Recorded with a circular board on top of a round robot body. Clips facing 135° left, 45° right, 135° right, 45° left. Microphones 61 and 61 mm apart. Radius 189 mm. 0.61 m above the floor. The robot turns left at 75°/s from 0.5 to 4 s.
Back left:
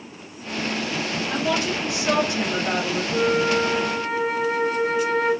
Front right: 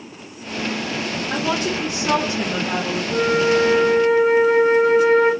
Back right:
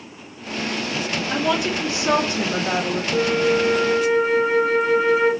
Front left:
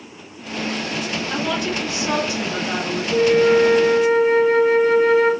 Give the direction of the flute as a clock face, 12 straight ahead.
12 o'clock.